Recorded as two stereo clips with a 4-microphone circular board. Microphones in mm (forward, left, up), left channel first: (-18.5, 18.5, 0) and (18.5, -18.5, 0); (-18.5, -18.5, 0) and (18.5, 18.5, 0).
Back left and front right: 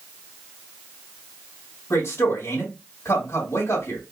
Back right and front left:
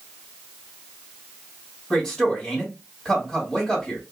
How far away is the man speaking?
About 2.5 m.